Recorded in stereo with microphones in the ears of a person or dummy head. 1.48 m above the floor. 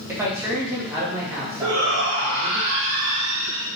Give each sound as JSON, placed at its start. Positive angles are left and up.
{"t": 0.1, "sound": "a man speaking", "side_deg": -20, "distance_m": 2.0}
{"t": 1.6, "sound": "a shout", "side_deg": -80, "distance_m": 1.7}